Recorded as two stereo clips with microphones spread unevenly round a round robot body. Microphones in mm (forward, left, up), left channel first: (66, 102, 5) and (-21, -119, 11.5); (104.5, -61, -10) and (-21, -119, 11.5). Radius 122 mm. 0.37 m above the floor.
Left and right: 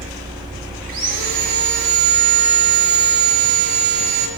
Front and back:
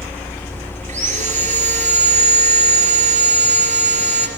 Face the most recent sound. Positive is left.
turn(degrees=-125)